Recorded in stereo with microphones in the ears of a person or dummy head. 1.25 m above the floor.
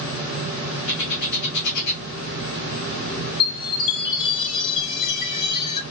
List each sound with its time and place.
0.9 s a bird: 65° left (ahead or behind), 1.2 m
3.4 s a chime: 25° left (ahead or behind), 1.2 m